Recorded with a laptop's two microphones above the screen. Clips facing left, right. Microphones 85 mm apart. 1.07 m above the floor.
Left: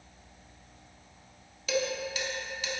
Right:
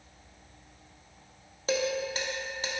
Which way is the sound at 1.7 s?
35° right (ahead or behind).